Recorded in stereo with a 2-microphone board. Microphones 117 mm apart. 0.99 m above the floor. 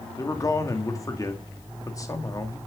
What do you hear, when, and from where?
0.2 s a man speaking: 30° left (ahead or behind), 2 m